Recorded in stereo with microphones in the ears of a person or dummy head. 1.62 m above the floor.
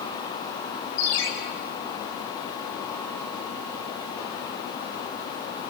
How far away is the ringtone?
About 5.5 m.